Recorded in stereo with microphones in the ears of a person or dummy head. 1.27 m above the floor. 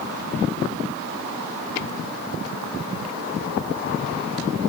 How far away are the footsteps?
No footsteps in this recording.